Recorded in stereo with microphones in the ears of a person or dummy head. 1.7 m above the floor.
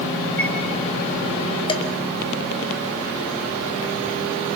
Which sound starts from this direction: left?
Dishes clattering, at 1.7 s.